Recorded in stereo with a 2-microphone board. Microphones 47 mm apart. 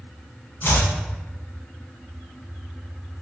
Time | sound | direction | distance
0.6 | chopping | 50° left (ahead or behind) | 0.6 m